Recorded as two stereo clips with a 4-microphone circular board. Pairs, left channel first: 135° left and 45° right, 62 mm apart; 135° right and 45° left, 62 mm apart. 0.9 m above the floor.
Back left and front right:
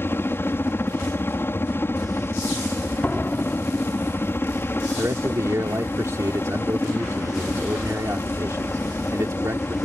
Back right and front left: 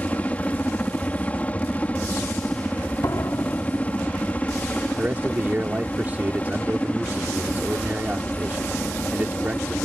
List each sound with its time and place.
0.0 s a helicopter: 165° left
3.0 s a door slam: 165° right
5.0 s a man speaking: 15° right